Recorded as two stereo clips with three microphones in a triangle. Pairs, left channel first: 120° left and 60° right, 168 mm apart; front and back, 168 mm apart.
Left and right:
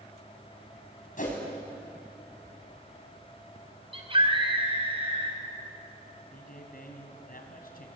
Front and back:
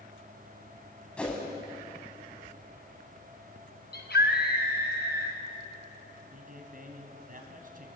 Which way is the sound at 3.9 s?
5° right.